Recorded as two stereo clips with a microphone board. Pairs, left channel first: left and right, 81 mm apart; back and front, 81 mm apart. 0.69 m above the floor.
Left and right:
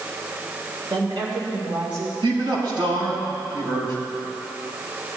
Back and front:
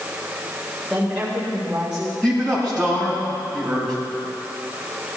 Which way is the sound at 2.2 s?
100° right.